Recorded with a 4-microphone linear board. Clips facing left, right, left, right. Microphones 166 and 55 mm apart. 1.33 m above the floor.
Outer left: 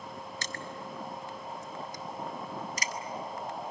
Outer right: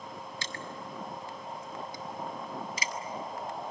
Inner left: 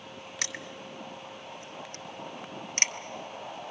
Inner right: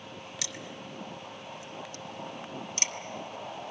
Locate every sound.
0.4 s crushing: 45° left (ahead or behind), 0.9 m